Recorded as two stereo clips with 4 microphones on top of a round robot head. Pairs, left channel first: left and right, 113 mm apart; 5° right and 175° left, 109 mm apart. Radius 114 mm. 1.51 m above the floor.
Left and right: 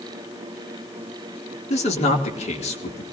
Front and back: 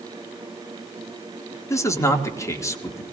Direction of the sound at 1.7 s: 55° left.